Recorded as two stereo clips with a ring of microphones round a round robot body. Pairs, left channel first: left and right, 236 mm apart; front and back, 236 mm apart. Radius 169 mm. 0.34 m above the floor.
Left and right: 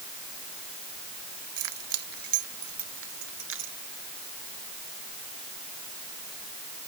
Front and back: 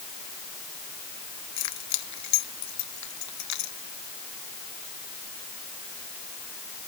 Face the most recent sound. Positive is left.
turn(degrees=-30)